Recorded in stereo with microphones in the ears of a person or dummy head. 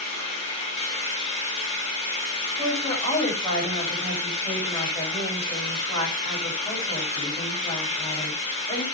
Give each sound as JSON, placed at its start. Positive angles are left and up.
{"t": 0.0, "sound": "an engine running", "side_deg": 35, "distance_m": 7.0}
{"t": 2.6, "sound": "a woman speaking", "side_deg": 15, "distance_m": 8.5}